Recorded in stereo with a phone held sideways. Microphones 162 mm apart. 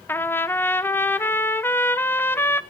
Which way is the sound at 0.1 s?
15° left (ahead or behind).